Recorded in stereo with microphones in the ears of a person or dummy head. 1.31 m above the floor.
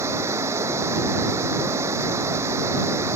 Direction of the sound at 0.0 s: 20° right (ahead or behind).